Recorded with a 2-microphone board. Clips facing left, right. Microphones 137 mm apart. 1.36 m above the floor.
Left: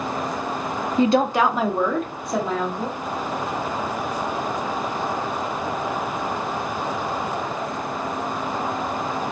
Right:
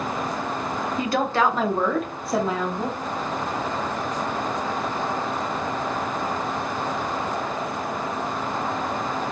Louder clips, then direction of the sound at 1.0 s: Left 5 dB; 30° left (ahead or behind).